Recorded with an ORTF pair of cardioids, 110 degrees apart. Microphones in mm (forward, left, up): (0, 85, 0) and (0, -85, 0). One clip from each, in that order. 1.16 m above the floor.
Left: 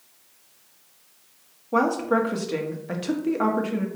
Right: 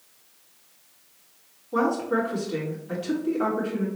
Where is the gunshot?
No gunshot in this recording.